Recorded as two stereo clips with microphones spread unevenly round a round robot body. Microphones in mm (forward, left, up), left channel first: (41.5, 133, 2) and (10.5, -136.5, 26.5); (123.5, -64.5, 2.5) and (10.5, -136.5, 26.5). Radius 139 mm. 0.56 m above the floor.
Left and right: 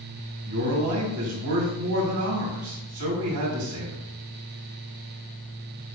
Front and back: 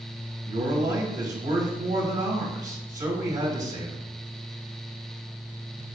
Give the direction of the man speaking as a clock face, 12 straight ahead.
4 o'clock.